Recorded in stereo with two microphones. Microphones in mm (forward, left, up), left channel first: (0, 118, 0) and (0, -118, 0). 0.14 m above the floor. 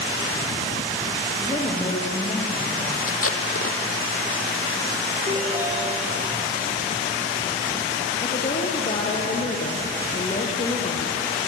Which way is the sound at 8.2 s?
35° left (ahead or behind).